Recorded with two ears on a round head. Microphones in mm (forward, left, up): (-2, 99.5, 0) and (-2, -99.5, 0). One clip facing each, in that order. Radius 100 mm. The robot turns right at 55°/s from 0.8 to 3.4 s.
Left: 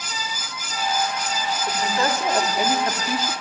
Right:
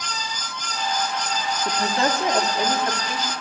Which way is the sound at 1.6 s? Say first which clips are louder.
Right 1 dB; 45° right.